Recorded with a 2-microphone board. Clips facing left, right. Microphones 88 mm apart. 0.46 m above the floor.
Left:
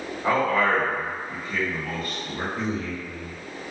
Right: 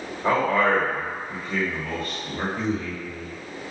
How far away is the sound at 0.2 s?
About 1.2 m.